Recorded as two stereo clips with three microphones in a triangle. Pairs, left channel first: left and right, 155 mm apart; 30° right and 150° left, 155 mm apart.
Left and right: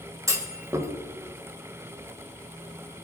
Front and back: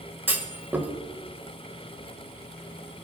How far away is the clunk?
About 1.6 m.